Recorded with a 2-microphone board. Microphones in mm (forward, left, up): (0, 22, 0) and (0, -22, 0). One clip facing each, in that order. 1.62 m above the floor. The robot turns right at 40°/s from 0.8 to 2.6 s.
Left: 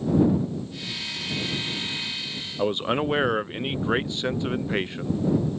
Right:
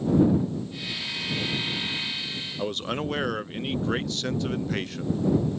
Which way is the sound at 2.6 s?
20° left (ahead or behind).